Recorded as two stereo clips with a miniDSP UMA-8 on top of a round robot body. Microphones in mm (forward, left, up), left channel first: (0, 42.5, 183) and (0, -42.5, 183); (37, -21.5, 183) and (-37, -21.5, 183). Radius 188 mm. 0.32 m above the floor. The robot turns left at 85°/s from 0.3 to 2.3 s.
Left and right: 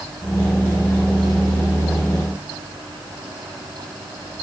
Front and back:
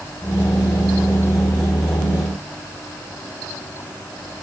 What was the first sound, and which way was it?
Only background noise.